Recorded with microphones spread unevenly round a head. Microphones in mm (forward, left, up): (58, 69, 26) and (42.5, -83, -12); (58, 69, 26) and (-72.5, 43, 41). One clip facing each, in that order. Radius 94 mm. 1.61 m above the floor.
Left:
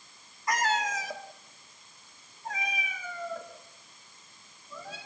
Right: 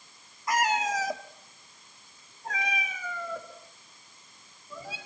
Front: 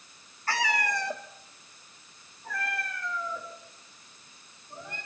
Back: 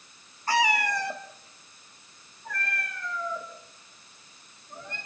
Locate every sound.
0.5 s a cat meowing: 145° left, 1.2 m; by 5.0 s 75° right, 5.5 m